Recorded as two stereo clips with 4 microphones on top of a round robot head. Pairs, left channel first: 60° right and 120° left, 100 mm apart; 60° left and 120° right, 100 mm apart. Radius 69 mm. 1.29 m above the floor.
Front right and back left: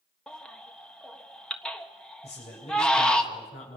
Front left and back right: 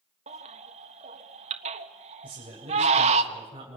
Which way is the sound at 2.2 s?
80° right.